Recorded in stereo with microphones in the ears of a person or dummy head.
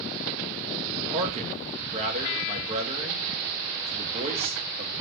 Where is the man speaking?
35° right (ahead or behind), 1.4 m.